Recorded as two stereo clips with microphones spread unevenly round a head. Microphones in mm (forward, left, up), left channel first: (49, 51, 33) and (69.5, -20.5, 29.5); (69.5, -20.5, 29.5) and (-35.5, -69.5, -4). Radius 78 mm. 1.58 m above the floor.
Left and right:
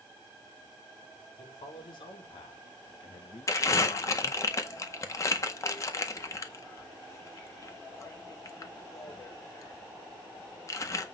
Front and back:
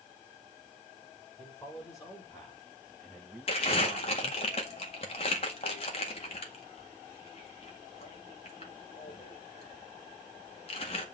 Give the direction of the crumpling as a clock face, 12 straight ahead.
10 o'clock.